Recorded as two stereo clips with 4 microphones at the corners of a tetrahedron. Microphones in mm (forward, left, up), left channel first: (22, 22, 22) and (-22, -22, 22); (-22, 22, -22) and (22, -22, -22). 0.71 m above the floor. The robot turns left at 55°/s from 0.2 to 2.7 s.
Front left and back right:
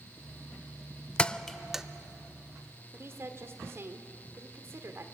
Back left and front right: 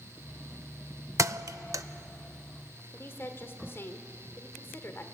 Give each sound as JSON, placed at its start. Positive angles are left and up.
{"t": 1.2, "sound": "a thud", "azimuth_deg": -20, "distance_m": 0.5}
{"t": 2.9, "sound": "a woman speaking", "azimuth_deg": 180, "distance_m": 2.5}